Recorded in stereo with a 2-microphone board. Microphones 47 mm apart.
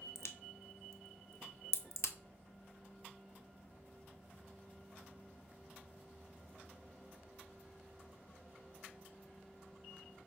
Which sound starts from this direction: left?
A crack, at 0.1 s.